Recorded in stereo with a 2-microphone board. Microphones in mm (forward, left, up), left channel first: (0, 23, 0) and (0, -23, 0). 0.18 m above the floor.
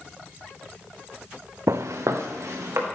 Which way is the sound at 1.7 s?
75° right (ahead or behind).